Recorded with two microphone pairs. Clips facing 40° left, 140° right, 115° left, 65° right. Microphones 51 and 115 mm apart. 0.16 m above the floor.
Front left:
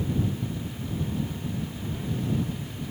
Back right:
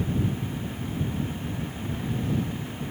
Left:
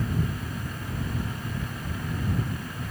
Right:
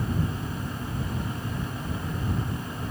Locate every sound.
Only background noise.